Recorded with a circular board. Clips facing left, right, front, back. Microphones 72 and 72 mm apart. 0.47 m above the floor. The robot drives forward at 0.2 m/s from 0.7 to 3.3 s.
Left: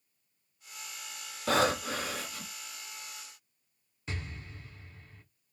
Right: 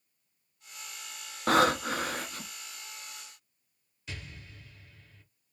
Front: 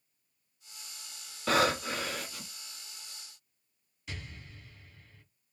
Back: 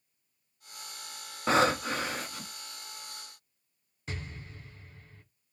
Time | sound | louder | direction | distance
1.5 | breathing | right 3 dB, back 2 dB | 120° right | 0.8 m
4.1 | an explosion | left 3 dB, back 4 dB | 135° left | 0.8 m